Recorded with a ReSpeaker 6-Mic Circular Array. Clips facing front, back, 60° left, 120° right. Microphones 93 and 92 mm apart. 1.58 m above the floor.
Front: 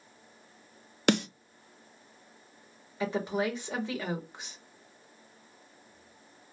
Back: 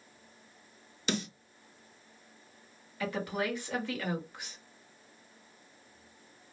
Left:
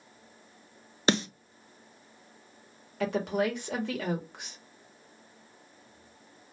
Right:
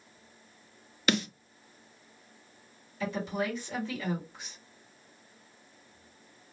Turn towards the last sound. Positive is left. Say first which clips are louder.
# front 3 dB, left 4 dB
turn(degrees=65)